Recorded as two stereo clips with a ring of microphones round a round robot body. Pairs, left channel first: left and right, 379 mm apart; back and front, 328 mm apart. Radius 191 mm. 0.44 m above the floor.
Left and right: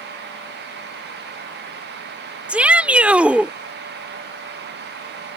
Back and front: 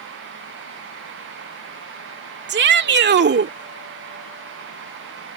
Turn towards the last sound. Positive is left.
turn(degrees=-5)